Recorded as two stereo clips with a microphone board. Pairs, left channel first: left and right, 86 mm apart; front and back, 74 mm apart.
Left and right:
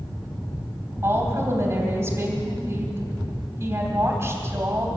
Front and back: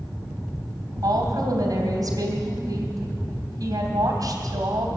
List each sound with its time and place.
1.0 s a woman speaking: 145° right, 2.5 m